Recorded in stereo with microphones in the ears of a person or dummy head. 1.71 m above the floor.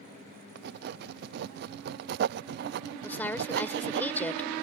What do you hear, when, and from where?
0.6 s writing: 55° right (ahead or behind)
3.0 s a woman speaking: 10° left (ahead or behind)